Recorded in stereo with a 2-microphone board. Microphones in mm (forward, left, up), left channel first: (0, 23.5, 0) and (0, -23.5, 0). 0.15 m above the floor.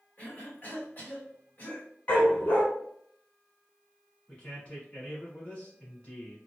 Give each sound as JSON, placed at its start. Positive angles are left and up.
{"t": 0.2, "sound": "a cough", "side_deg": 35, "distance_m": 1.4}
{"t": 2.1, "sound": "a dog barking", "side_deg": 40, "distance_m": 1.1}
{"t": 4.3, "sound": "a man speaking", "side_deg": 30, "distance_m": 1.5}